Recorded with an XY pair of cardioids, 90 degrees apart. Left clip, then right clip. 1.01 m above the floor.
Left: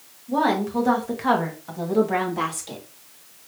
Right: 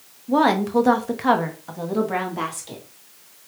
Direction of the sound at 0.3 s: 65° right.